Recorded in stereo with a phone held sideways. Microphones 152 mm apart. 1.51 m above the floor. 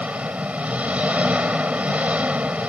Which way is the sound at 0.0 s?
10° right (ahead or behind).